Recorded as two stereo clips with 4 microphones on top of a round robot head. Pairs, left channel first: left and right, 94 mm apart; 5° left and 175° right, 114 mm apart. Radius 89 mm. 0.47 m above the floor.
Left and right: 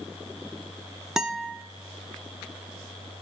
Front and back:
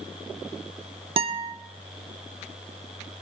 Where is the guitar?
175° right, 0.9 m.